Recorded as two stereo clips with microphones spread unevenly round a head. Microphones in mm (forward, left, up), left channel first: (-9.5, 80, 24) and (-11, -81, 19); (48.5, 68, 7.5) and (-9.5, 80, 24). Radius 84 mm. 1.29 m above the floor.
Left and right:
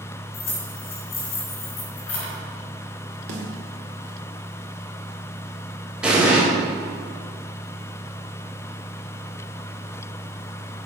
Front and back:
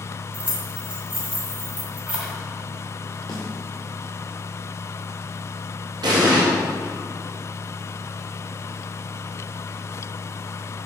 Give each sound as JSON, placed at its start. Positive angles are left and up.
{"t": 0.3, "sound": "keys jangling", "azimuth_deg": 100, "distance_m": 3.5}
{"t": 3.3, "sound": "a snare drum", "azimuth_deg": -65, "distance_m": 1.9}
{"t": 6.0, "sound": "an explosion", "azimuth_deg": -175, "distance_m": 1.9}